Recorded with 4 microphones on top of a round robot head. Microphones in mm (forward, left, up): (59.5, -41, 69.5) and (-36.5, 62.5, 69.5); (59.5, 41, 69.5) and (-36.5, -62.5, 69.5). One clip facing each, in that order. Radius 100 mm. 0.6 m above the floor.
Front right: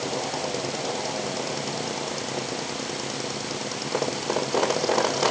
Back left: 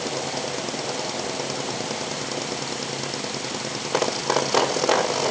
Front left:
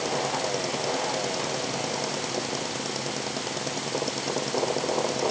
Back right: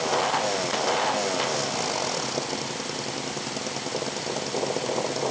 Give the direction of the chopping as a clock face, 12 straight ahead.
No chopping in this recording.